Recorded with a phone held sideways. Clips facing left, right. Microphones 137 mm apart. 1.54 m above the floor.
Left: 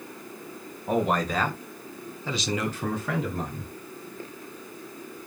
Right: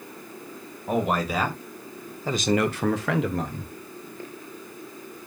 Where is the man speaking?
Centre (ahead or behind), 1.4 m; by 3.7 s 65° right (ahead or behind), 1.0 m.